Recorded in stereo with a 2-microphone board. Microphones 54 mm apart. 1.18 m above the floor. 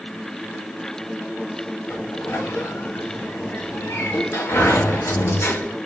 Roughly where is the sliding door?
Left.